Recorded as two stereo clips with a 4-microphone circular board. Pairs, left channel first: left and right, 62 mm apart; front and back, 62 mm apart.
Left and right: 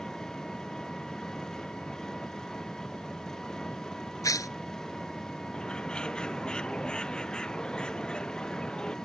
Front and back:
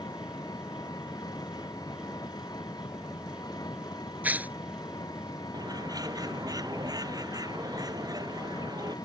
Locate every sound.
0.0 s an engine running: 10° left
4.2 s tearing paper: 115° left
5.5 s a bird: 165° left